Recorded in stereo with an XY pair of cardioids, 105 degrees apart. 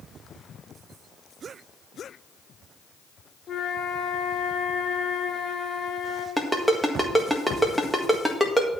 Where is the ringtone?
5° right, 1.7 m.